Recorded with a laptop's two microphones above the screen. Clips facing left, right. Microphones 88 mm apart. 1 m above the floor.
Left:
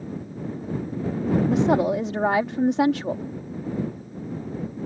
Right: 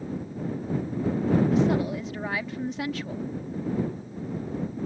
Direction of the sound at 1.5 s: 65° left (ahead or behind).